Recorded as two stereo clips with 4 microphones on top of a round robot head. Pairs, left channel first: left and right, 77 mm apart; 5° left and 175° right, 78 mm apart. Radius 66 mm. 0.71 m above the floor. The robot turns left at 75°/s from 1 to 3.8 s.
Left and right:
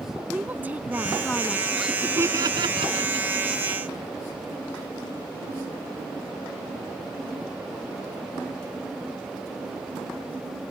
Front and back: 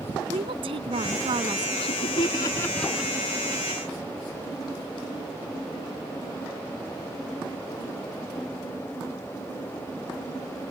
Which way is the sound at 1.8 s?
Straight ahead.